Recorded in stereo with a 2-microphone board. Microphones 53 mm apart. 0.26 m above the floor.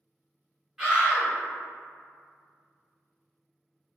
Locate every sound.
0.8 s a scream: 5° right (ahead or behind), 1.4 m